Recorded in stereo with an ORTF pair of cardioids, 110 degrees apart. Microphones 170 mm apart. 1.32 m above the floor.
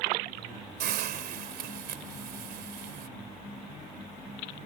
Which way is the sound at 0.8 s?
65° right.